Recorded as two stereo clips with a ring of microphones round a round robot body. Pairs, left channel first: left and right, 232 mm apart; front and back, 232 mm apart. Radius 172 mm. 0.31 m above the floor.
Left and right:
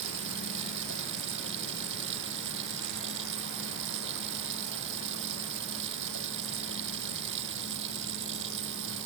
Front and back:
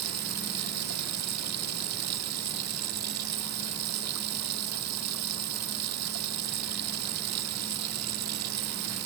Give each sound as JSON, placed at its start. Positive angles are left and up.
{"t": 0.0, "sound": "running water", "azimuth_deg": -145}